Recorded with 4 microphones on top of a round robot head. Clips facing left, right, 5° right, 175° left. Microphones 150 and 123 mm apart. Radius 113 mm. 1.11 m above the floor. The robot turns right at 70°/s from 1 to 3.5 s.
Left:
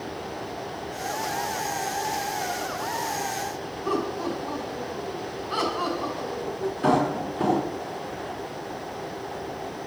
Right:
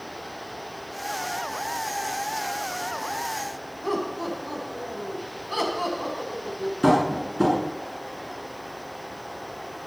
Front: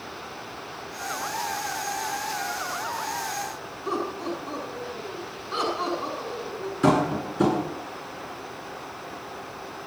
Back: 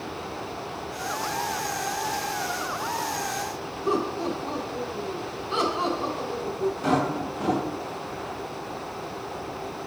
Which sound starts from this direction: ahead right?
Tapping, at 6.8 s.